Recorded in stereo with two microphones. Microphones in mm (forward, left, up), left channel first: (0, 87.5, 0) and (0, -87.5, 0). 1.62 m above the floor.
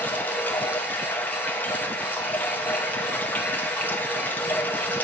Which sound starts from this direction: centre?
Running water, at 0.0 s.